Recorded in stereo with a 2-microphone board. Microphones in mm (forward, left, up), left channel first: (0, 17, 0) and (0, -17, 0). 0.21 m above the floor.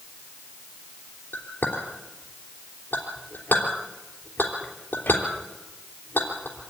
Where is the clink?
70° left (ahead or behind), 3.5 m.